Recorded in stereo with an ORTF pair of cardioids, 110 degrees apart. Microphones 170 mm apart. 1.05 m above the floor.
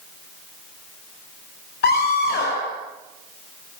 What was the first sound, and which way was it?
A scream, 70° left.